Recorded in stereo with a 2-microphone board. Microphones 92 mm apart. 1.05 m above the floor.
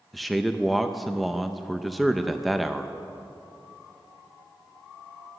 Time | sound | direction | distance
0.1 | a man speaking | centre (ahead or behind) | 0.5 m